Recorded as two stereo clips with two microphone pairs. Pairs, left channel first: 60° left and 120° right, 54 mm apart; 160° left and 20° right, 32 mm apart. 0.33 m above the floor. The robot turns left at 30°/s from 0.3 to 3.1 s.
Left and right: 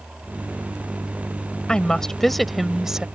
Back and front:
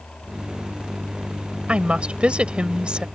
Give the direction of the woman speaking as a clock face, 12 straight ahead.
12 o'clock.